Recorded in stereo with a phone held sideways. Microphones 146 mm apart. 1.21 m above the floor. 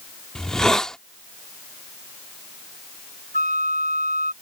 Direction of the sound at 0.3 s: 5° left (ahead or behind).